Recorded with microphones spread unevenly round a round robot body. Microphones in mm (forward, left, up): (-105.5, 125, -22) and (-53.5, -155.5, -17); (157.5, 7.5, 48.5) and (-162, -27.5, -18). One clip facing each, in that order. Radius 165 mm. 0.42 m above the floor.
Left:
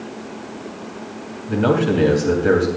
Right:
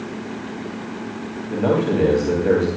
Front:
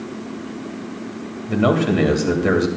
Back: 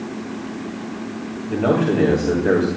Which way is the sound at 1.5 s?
30° left.